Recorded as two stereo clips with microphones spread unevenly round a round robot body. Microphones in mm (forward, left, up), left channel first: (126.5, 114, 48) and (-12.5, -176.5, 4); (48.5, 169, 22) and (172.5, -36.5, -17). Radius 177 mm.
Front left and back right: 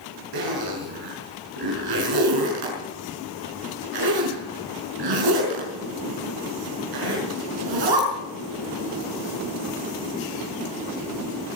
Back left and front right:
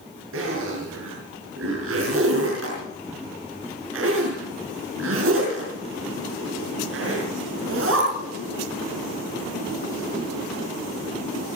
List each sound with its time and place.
0.3 s a zipper: 115° right, 5.5 m